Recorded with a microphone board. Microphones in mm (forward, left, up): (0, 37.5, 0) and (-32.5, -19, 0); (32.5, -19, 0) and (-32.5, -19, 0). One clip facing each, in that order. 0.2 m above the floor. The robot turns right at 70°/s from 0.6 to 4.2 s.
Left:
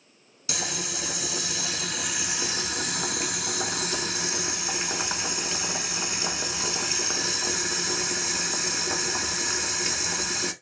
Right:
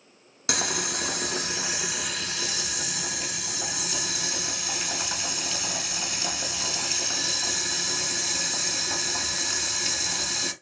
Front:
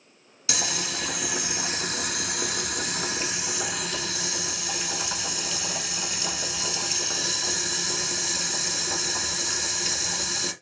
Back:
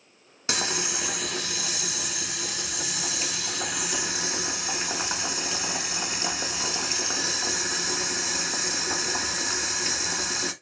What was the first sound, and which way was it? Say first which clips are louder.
Boiling: right 4 dB, back 1 dB; 130° right.